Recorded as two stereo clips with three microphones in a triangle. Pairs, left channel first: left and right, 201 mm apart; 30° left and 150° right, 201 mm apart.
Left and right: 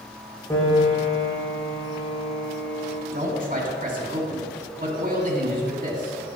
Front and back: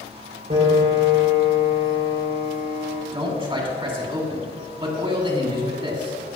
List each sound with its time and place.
0.5 s a piano: 160° left, 4 m
3.1 s a man speaking: 100° right, 2 m